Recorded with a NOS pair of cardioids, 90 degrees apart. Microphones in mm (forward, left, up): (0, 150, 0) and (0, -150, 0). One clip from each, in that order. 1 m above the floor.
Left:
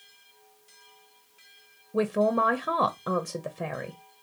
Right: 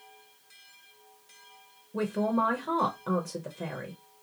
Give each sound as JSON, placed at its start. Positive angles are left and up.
{"t": 1.9, "sound": "a man speaking", "azimuth_deg": 25, "distance_m": 0.6}